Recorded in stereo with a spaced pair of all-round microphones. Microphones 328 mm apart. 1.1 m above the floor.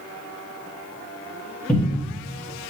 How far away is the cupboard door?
About 1.5 m.